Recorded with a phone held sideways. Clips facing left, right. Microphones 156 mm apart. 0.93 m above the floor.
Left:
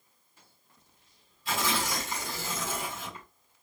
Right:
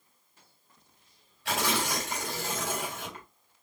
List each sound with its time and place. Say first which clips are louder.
1.4 s tearing paper: right 1 dB; 85° right, 3 m